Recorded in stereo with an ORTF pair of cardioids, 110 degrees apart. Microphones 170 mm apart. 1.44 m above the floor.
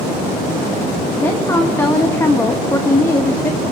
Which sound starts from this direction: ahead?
A woman speaking, at 1.2 s.